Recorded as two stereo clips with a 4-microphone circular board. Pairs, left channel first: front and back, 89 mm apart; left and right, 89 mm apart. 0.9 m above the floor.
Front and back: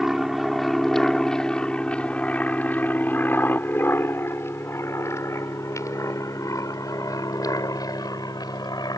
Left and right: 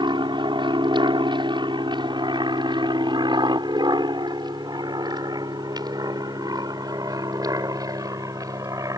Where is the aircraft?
95° right; by 9.0 s 40° right.